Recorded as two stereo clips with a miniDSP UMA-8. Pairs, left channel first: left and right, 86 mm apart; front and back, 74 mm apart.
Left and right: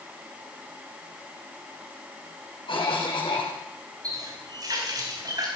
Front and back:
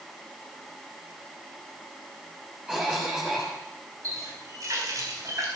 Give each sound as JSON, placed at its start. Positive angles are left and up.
{"t": 2.7, "sound": "a cough", "azimuth_deg": 110, "distance_m": 3.5}
{"t": 4.0, "sound": "a running tap", "azimuth_deg": -135, "distance_m": 5.0}